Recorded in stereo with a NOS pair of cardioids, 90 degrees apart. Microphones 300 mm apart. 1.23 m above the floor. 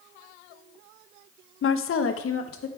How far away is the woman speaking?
About 0.7 m.